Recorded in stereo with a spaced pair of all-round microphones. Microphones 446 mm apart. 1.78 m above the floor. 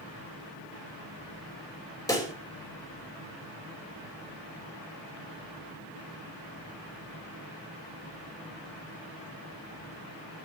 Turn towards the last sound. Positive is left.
turn(degrees=5)  # may be behind; listen again after turning